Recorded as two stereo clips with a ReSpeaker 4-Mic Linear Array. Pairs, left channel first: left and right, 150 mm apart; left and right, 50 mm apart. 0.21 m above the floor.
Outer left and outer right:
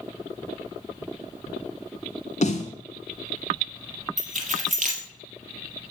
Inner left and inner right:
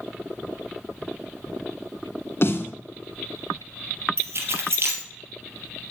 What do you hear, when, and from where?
2.4 s a snare drum: 50° left (ahead or behind), 1.8 m
4.2 s keys jangling: 60° right (ahead or behind), 3.5 m